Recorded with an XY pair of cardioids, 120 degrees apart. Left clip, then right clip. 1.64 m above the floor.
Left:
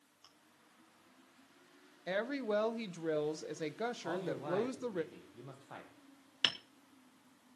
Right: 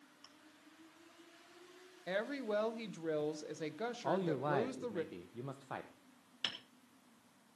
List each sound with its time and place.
0.2 s chewing: straight ahead, 3.5 m
2.1 s a woman speaking: 15° left, 1.2 m
4.0 s a man speaking: 40° right, 1.3 m
6.4 s hammering: 45° left, 1.3 m